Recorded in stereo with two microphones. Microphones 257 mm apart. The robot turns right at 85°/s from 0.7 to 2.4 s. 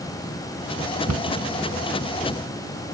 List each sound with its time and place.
1.1 s a cupboard door: 75° right (ahead or behind)